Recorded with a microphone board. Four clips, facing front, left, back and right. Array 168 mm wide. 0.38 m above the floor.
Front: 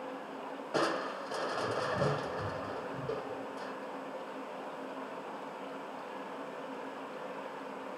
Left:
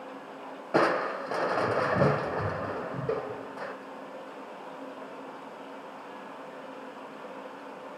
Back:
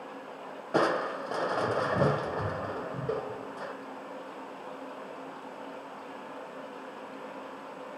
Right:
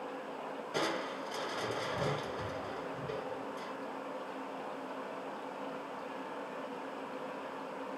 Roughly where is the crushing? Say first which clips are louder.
Left 11 dB, back 6 dB; behind left.